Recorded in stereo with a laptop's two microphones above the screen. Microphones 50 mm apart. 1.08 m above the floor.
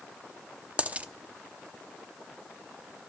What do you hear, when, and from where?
0.8 s a dropped coin: 25° right (ahead or behind), 0.7 m